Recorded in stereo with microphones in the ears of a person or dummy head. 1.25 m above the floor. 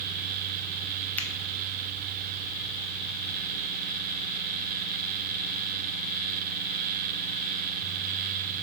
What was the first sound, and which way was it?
A finger snap, 10° left (ahead or behind).